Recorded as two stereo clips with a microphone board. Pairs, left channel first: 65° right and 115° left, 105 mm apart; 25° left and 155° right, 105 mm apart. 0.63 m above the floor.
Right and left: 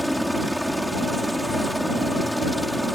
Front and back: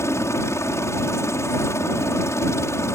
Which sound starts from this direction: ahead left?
A helicopter, at 0.0 s.